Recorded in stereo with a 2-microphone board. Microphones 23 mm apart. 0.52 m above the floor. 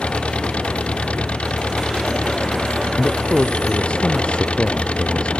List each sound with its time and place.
0.0 s an engine running: 65° left (ahead or behind)
3.0 s a man speaking: 55° left (ahead or behind)